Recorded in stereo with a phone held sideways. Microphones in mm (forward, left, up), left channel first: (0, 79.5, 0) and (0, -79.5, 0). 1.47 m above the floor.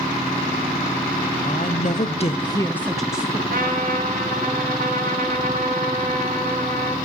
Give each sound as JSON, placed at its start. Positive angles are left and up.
{"t": 1.4, "sound": "a woman speaking", "side_deg": 55, "distance_m": 0.8}
{"t": 3.5, "sound": "a trumpet", "side_deg": -65, "distance_m": 1.6}